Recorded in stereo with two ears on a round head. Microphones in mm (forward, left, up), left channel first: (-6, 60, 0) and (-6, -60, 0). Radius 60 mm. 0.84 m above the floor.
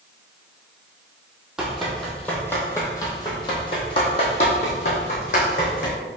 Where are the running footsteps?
Centre (ahead or behind), 1.7 m; by 6.0 s 65° left (ahead or behind), 2.5 m.